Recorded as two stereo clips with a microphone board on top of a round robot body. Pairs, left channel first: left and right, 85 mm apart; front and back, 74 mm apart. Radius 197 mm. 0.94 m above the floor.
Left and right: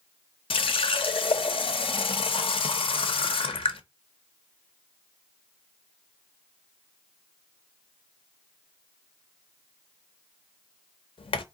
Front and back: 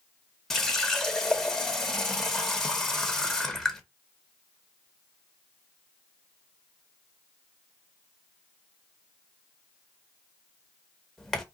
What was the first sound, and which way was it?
A running tap, 85° left.